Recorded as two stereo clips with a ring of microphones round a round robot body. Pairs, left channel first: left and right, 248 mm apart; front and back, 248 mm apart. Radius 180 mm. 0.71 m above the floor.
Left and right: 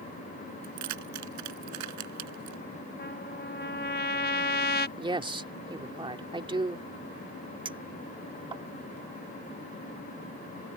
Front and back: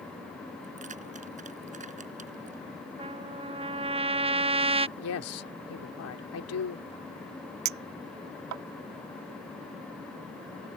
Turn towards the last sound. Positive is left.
turn(degrees=-165)